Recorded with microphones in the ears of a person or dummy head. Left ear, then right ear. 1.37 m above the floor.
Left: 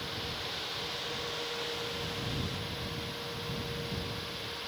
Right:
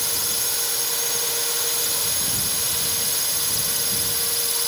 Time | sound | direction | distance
0.0 | a drone | 80° right | ?